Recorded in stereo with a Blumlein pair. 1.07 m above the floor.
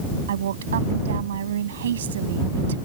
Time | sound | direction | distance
0.3 | a woman speaking | 60° right | ?